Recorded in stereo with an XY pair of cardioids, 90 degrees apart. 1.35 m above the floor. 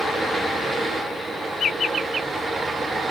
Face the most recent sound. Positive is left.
turn(degrees=-60)